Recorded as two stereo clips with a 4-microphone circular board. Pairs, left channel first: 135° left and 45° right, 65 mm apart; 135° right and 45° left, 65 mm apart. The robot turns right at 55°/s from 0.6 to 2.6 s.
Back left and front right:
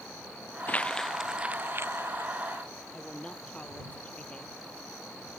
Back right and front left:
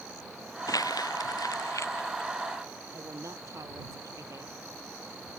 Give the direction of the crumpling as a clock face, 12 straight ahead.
5 o'clock.